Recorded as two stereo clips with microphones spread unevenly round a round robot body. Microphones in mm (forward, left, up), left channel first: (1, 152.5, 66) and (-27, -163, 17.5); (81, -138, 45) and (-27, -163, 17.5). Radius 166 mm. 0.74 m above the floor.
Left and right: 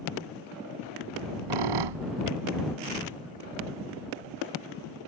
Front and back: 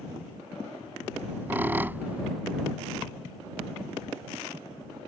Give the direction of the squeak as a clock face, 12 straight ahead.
3 o'clock.